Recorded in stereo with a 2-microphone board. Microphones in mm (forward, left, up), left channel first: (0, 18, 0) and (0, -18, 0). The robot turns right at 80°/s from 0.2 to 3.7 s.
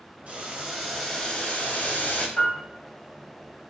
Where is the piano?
30° left (ahead or behind), 1.3 m; by 2.6 s 45° left (ahead or behind), 1.3 m.